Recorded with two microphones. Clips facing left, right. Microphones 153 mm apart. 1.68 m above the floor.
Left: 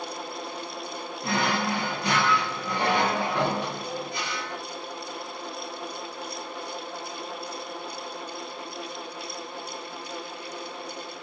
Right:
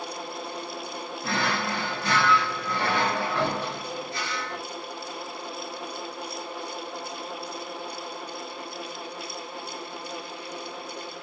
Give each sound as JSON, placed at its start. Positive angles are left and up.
{"t": 1.2, "sound": "a drawer", "side_deg": 20, "distance_m": 0.8}